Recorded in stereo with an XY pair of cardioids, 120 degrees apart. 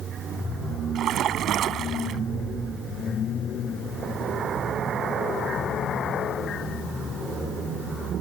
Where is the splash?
60° right.